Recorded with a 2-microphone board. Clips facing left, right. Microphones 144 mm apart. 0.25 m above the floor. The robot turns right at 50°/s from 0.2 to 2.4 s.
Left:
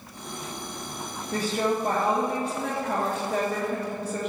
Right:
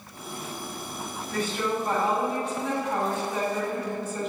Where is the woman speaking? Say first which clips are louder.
Left 3 dB; 30° left, 3.5 m; by 4.3 s 85° left, 3.5 m.